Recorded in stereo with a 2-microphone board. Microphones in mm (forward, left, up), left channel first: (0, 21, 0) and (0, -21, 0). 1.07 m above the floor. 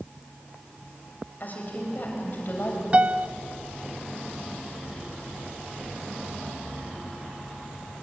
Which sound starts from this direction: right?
A piano, at 2.9 s.